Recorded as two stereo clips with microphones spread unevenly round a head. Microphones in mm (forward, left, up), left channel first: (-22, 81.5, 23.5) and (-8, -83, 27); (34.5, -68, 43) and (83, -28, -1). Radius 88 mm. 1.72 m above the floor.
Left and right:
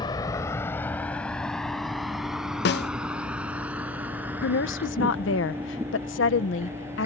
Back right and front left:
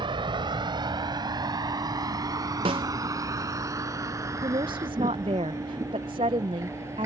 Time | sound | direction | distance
0.0 | a vehicle | 30° left | ?
2.6 | a snare drum | 90° left | ?
4.4 | a woman speaking | 90° left | ?